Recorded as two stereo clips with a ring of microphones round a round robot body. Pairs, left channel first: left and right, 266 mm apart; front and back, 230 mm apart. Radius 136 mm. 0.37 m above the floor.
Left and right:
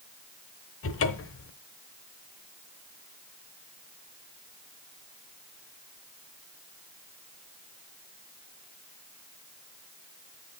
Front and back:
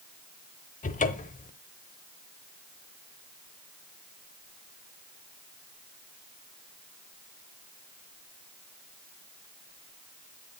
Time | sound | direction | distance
0.8 | a cupboard door | 55° left | 0.9 m